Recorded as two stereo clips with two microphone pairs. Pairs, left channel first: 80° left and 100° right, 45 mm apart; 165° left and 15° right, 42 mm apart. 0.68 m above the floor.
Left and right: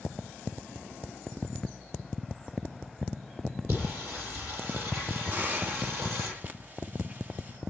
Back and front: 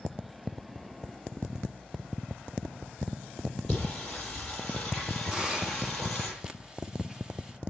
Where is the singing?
110° right, 9 m.